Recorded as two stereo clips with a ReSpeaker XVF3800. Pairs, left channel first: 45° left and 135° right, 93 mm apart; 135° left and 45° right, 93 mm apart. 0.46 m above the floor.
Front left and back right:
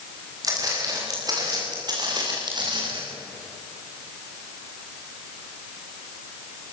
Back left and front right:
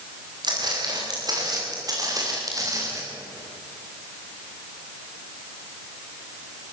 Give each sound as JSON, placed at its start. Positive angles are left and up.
{"t": 0.4, "sound": "footsteps", "azimuth_deg": -85, "distance_m": 9.0}